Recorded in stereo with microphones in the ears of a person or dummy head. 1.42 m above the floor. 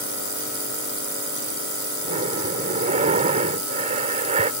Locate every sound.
2.0 s breathing: 40° right (ahead or behind)